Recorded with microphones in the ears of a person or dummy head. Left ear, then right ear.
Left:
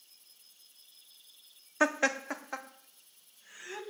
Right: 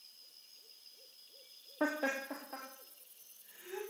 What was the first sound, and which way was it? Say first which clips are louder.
Laughter: left 7 dB; 70° left (ahead or behind).